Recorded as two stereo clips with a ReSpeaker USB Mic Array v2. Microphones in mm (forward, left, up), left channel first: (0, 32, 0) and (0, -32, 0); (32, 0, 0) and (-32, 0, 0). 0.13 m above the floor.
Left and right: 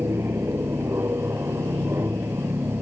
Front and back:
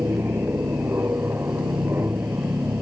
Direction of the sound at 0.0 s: 130° right.